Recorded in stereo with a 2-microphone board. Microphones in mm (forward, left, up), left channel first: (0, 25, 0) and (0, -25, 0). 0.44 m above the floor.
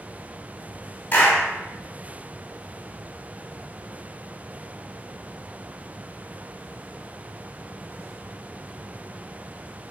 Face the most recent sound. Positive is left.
turn(degrees=35)  # may be behind; listen again after turning